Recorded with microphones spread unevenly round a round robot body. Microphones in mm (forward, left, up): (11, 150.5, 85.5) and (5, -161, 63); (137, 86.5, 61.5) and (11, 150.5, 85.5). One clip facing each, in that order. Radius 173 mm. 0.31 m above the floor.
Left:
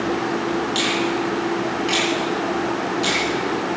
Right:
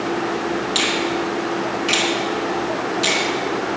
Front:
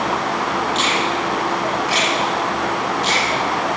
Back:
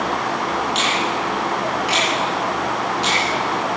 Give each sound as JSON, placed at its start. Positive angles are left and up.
{"t": 0.8, "sound": "a finger snap", "azimuth_deg": -165, "distance_m": 4.0}